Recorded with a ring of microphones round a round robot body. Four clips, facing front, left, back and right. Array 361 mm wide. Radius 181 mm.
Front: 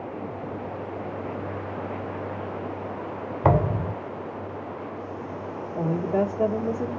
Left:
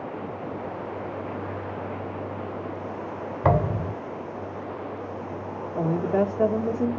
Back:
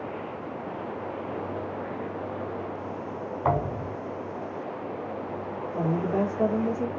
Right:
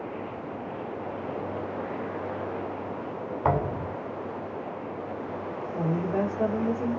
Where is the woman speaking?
80° left, 0.9 m.